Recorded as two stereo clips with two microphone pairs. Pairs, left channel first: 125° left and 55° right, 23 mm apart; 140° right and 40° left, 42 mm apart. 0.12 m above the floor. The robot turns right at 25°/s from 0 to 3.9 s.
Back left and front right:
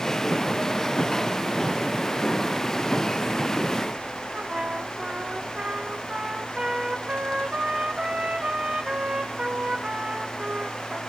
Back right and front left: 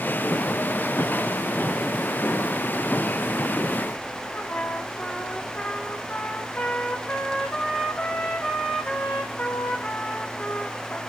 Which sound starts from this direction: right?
A trumpet, at 4.3 s.